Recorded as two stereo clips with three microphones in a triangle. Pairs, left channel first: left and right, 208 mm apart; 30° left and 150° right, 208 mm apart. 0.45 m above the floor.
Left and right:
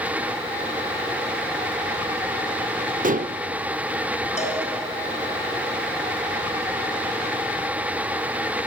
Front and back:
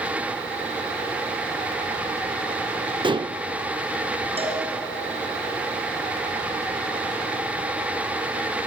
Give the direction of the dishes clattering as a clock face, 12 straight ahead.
3 o'clock.